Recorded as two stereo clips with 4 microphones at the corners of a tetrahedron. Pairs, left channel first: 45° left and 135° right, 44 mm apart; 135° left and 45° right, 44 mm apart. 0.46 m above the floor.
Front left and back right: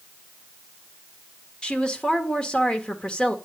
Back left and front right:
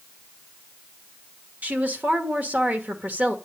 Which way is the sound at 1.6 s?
15° right.